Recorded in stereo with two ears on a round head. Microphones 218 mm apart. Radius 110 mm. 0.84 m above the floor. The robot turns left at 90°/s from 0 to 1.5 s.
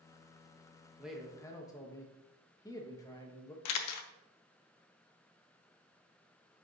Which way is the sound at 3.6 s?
70° left (ahead or behind).